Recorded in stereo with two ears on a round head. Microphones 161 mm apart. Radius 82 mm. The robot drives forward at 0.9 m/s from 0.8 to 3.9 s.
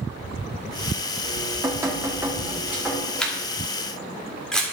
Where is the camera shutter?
5° left (ahead or behind), 1.4 m.